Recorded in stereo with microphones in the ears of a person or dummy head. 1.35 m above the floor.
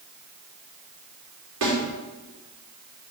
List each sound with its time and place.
1.6 s a snare drum: 70° right (ahead or behind), 4 m